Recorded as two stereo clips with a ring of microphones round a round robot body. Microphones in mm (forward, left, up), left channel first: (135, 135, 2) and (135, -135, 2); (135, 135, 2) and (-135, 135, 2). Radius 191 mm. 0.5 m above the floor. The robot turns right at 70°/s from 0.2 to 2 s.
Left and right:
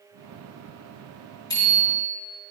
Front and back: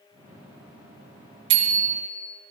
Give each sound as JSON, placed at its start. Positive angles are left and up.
{"t": 1.5, "sound": "a bicycle bell", "azimuth_deg": 170, "distance_m": 3.0}